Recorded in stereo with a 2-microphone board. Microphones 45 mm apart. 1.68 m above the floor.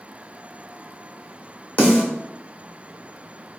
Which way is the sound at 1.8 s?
30° left (ahead or behind).